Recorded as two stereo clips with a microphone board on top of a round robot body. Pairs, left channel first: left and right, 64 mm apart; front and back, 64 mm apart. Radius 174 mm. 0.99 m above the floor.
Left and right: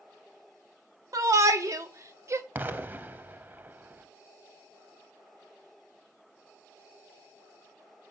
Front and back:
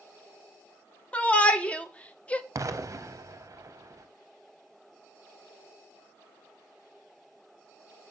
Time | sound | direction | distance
1.1 | a shout | 70° right | 1.5 m
2.5 | an explosion | 150° right | 0.7 m